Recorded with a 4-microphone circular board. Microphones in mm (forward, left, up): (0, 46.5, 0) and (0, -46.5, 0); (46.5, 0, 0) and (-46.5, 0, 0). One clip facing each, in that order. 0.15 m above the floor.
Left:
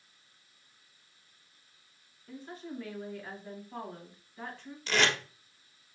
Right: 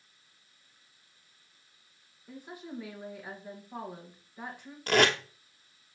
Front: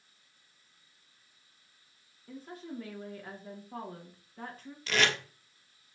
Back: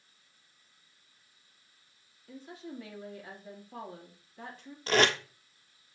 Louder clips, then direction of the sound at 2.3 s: Left 1 dB, front 1 dB; 15° right.